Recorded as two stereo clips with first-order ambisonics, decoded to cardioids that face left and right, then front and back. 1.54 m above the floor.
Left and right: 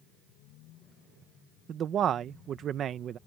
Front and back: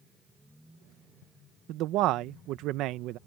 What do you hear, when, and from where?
1.7 s a man speaking: 145° right